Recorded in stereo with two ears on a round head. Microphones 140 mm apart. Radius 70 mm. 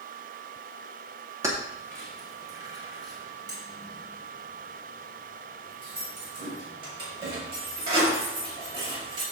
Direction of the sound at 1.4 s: 20° right (ahead or behind).